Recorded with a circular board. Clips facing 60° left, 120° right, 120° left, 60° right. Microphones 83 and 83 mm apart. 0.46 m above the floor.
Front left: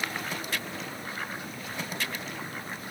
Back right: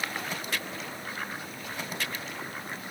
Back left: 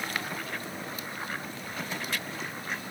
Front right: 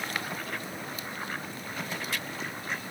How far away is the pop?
I don't hear a pop.